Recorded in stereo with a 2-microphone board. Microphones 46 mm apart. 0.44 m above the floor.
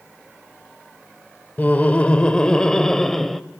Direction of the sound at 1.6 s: 35° left (ahead or behind).